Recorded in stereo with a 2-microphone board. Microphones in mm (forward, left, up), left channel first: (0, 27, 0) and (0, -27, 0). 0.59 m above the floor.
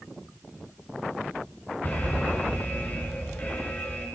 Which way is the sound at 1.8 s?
35° left (ahead or behind).